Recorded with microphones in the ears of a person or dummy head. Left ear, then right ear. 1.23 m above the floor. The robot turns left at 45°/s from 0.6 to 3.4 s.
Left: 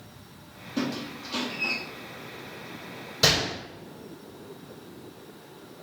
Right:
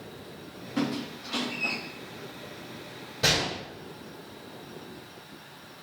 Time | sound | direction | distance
0.8 | a squeak | 15° right (ahead or behind) | 0.7 m
3.2 | a gunshot | 70° left (ahead or behind) | 1.8 m